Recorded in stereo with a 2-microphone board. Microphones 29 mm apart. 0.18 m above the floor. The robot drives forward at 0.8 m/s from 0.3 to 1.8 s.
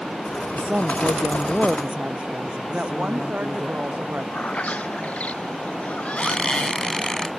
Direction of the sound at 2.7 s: 65° right (ahead or behind).